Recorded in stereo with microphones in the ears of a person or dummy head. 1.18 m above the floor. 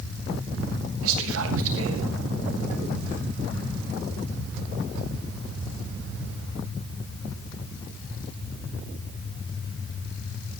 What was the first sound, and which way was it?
Whispering, 80° right.